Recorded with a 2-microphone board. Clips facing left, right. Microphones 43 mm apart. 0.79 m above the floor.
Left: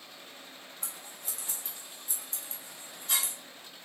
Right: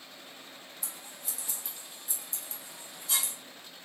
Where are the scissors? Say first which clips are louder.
Left 1 dB; 45° left (ahead or behind), 1.3 m.